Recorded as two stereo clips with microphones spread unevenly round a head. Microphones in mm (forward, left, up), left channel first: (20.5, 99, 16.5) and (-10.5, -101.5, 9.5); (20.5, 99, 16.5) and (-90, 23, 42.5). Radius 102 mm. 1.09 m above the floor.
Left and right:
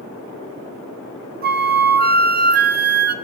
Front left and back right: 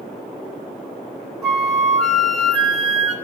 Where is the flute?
55° right, 1.6 m.